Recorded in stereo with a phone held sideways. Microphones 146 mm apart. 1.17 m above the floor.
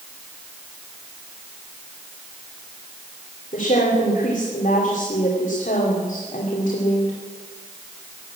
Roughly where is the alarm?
I don't hear an alarm.